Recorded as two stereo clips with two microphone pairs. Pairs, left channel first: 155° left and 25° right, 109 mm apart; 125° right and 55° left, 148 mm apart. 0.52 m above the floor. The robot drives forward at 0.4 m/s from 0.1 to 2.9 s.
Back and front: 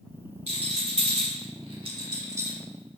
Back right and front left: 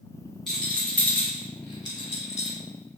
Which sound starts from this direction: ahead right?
A rattle, at 0.5 s.